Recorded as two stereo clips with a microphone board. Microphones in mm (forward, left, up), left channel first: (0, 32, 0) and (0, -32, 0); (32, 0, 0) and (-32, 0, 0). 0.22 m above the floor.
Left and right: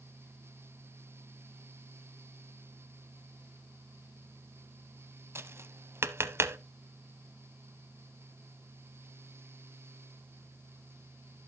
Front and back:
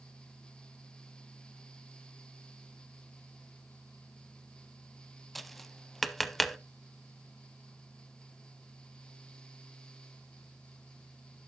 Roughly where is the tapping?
Right.